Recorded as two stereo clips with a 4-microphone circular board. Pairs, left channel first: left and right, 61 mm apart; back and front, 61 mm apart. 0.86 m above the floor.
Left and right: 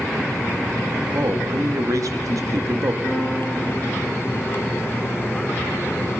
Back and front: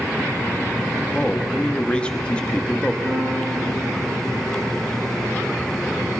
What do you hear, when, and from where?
1.1 s a man speaking: 110° right, 1.2 m
3.0 s a piano: 50° right, 5.5 m